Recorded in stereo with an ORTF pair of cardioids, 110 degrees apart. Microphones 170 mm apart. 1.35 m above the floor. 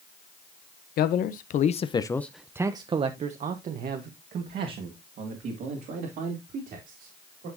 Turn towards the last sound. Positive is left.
turn(degrees=-70)